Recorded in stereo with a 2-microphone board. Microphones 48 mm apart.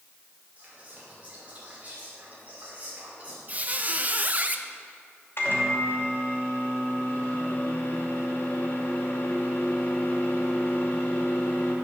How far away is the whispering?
About 5.5 m.